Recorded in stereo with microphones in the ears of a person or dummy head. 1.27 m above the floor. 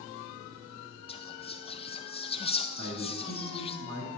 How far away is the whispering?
About 0.6 m.